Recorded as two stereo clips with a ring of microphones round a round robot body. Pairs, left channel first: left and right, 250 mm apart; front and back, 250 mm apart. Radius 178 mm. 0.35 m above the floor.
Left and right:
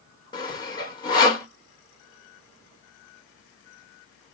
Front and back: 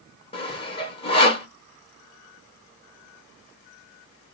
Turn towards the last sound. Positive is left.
turn(degrees=35)